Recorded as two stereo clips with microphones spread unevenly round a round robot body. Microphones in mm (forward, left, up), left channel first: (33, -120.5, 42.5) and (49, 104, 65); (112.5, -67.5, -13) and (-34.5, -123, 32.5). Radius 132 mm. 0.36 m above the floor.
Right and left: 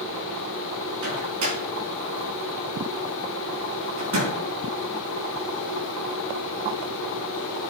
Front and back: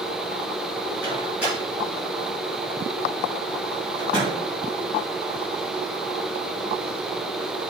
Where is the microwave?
110° left, 4 m.